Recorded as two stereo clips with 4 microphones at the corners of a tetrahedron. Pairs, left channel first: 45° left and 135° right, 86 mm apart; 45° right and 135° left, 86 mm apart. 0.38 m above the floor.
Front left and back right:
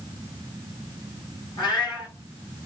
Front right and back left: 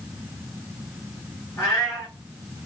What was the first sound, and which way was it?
A cat meowing, 10° left.